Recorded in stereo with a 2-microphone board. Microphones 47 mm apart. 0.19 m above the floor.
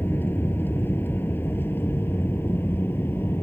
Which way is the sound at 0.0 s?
50° left (ahead or behind).